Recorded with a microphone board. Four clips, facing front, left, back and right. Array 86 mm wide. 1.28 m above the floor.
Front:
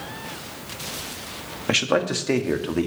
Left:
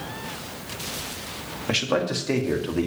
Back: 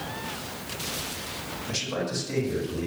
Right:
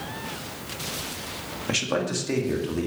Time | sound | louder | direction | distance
1.7 | a man speaking | left 2 dB, front 10 dB | 10° left | 1.6 m